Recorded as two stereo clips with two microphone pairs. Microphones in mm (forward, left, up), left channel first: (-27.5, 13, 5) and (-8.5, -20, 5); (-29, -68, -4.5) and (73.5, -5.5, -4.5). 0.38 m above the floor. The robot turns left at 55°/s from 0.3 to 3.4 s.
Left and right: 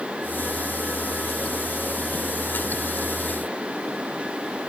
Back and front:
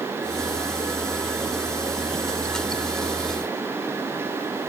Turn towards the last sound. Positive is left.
No sound to turn to.